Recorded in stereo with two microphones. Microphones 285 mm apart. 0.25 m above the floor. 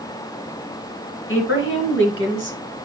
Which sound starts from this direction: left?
A woman speaking, at 1.3 s.